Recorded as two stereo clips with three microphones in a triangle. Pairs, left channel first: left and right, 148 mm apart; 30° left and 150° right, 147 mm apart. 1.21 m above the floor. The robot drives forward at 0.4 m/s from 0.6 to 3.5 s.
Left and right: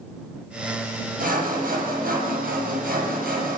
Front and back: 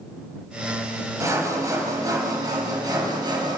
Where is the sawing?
80° right, 6.5 m; by 3.6 s 90° right, 6.5 m.